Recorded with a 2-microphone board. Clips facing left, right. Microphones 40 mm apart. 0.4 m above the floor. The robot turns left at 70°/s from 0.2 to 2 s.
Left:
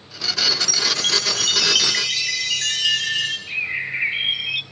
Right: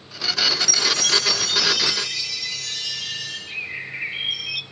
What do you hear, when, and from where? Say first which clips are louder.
0.5 s a chime: even; 165° right, 3.5 m; by 3.4 s 90° left, 3.5 m
3.5 s a bird: left 6 dB; 25° left (ahead or behind), 0.6 m